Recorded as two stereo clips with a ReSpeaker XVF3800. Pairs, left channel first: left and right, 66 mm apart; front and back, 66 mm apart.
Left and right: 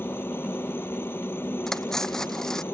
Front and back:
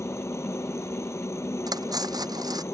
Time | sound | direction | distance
0.0 | a helicopter | 40° left | ?
1.7 | cutlery clinking | 175° left | ?